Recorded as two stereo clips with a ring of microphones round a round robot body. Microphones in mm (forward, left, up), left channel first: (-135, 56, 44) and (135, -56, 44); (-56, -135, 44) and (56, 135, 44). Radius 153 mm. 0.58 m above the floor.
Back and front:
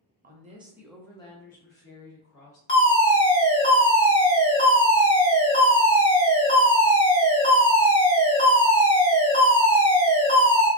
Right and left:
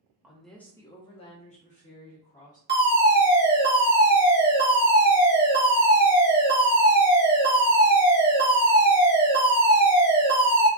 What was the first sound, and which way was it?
A woman speaking, 15° right.